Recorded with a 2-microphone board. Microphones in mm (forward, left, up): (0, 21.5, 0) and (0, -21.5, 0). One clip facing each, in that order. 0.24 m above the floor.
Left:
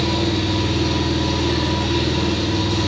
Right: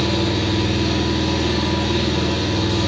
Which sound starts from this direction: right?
An engine running, at 0.0 s.